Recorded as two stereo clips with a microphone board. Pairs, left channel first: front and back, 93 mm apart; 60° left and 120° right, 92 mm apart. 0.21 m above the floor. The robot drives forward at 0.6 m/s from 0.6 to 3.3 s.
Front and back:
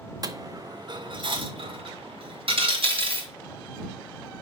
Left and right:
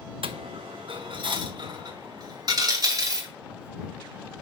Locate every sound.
0.2 s a dropped coin: 135° right, 0.6 m; by 3.3 s 170° right, 2 m